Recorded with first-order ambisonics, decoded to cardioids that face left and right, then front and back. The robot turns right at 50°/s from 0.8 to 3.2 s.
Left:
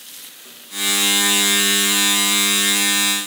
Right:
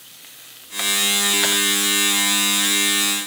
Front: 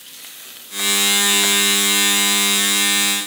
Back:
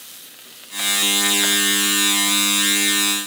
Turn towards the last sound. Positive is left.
No sound to turn to.